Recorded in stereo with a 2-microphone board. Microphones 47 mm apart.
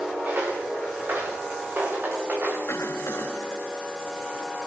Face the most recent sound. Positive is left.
turn(degrees=70)  # may be behind; listen again after turning